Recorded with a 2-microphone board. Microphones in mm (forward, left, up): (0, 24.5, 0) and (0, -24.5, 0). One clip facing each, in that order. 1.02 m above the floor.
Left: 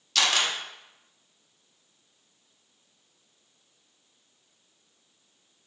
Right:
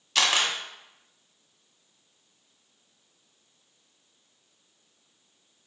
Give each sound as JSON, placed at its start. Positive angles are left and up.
{"t": 0.1, "sound": "a camera shutter", "side_deg": -15, "distance_m": 0.9}